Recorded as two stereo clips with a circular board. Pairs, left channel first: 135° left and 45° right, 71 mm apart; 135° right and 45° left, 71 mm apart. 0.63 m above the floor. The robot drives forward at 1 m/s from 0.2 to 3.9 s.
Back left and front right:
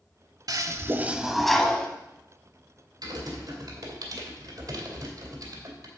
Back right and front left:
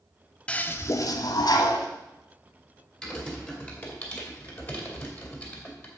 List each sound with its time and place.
0.5 s a toilet flushing: 65° right, 0.8 m; by 1.9 s 150° right, 1.3 m
3.0 s typing on a keyboard: 55° right, 2.5 m; by 5.9 s 75° right, 2.5 m